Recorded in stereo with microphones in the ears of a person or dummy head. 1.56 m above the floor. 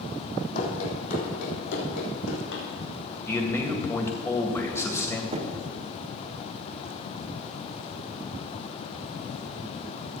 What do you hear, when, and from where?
0.6 s running footsteps: 55° left (ahead or behind), 4 m; by 2.6 s 75° left (ahead or behind), 5.5 m
3.3 s a man speaking: 20° left (ahead or behind), 1.8 m
5.3 s knocking: 40° right (ahead or behind), 1.3 m